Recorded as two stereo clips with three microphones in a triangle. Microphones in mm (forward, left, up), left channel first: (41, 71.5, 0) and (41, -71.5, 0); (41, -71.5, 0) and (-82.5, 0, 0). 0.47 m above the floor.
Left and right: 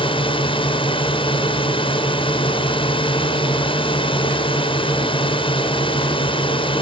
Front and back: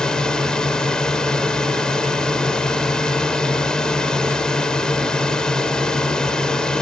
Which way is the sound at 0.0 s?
55° left.